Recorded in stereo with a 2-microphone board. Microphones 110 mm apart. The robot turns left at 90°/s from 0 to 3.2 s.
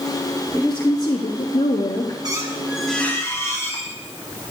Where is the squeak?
125° right, 1.0 m; by 4.0 s 145° left, 1.0 m.